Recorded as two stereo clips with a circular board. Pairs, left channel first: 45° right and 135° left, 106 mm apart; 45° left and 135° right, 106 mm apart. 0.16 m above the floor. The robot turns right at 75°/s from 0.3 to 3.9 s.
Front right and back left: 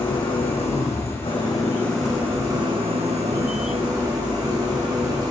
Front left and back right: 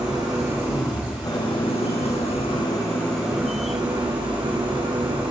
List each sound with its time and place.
0.0 s an engine running: 80° right, 4 m; by 5.3 s 170° right, 4 m